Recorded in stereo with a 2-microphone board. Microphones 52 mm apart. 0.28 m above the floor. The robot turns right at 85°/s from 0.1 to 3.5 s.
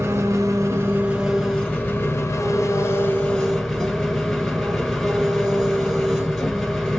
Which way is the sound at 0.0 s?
110° right.